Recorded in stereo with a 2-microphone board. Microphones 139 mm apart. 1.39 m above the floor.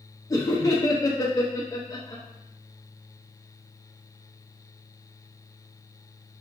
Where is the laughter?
25° left (ahead or behind), 0.5 m.